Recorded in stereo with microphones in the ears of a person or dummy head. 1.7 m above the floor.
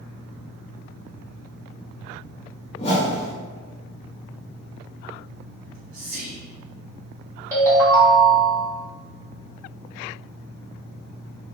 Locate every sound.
2.8 s a whoosh: 30° left (ahead or behind), 0.7 m
5.6 s whispering: 65° right (ahead or behind), 0.6 m
7.5 s a ringtone: 15° right (ahead or behind), 1.3 m